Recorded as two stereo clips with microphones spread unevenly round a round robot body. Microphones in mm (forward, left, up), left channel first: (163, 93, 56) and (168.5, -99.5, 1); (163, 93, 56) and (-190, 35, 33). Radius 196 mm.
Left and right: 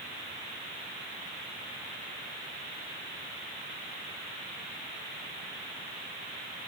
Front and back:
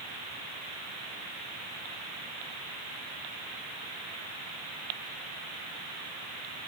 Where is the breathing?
I don't hear breathing.